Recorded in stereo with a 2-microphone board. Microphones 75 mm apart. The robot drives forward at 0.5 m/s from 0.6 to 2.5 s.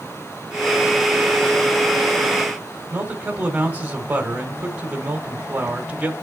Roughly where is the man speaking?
Centre.